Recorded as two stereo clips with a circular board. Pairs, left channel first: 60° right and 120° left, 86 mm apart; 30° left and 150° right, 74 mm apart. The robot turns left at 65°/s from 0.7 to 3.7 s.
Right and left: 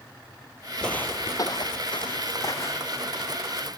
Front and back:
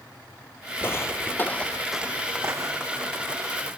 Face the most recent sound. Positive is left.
turn(degrees=180)